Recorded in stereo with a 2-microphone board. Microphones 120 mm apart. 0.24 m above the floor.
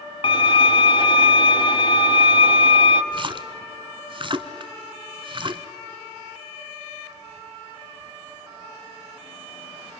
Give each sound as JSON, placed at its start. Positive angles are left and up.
{"t": 0.2, "sound": "a violin", "side_deg": 45, "distance_m": 0.9}
{"t": 3.1, "sound": "a splash", "side_deg": -45, "distance_m": 0.8}